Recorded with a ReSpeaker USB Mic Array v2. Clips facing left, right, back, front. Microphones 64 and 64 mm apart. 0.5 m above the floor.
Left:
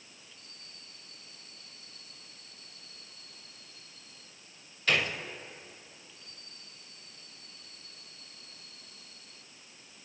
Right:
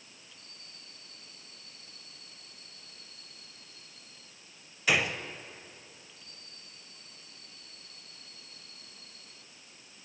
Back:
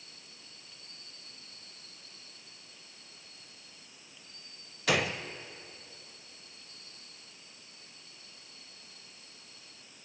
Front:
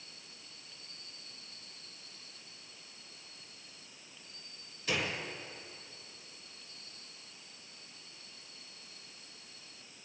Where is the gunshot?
170° right, 0.6 m.